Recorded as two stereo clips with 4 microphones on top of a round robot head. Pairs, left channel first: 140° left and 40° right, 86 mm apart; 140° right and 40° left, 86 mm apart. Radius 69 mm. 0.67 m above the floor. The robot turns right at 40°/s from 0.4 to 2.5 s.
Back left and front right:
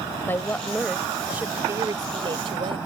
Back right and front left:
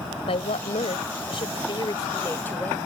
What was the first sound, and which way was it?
A woman speaking, 150° right.